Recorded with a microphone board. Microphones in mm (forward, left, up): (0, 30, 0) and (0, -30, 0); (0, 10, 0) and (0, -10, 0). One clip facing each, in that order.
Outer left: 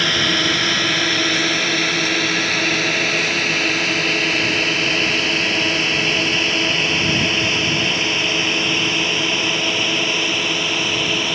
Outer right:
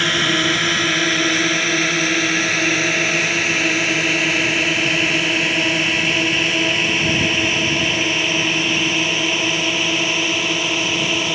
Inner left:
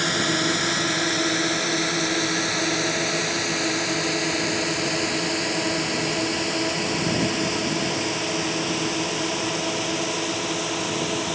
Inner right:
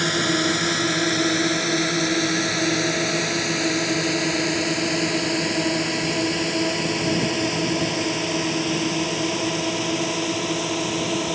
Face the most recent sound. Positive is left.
turn(degrees=-10)  # may be behind; listen again after turning